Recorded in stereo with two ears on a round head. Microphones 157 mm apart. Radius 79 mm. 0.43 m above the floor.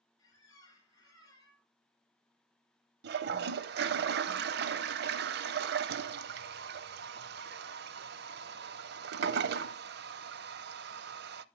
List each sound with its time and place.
0.2 s a squeak: 20° left (ahead or behind), 4 m
3.0 s a toilet flushing: 65° right (ahead or behind), 0.5 m